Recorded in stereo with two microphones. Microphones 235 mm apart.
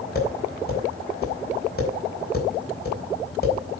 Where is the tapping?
40° left (ahead or behind), 5 m.